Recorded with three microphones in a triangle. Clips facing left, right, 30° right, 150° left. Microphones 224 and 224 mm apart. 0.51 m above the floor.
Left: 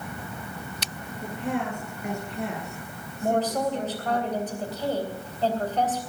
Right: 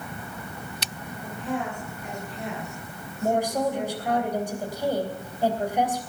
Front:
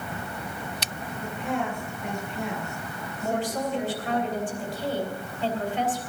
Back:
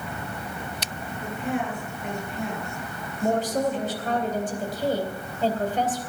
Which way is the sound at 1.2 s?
65° left.